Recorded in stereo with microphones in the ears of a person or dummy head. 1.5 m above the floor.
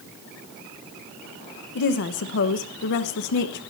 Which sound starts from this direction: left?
A woman speaking, at 1.8 s.